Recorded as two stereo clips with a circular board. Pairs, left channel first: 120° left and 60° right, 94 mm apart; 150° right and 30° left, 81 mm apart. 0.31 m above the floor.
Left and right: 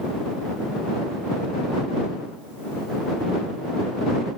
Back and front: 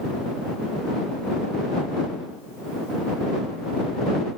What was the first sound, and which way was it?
Only background noise.